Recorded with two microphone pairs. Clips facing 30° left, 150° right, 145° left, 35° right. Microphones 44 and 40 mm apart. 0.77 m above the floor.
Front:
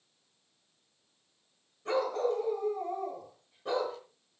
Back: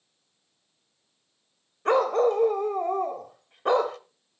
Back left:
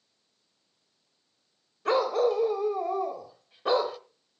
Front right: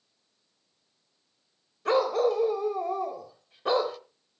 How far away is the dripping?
I don't hear dripping.